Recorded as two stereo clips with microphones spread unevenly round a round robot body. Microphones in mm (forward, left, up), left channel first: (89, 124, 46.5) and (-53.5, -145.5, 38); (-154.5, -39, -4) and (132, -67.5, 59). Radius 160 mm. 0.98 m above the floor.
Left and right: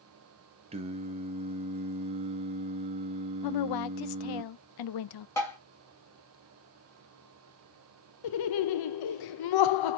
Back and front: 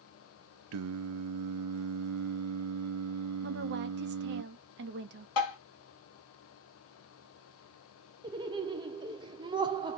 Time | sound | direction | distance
0.7 | singing | 45° right | 0.6 m
3.4 | a woman speaking | 55° left | 0.5 m
5.4 | tapping | 145° left | 1.4 m
8.2 | laughter | 75° left | 0.5 m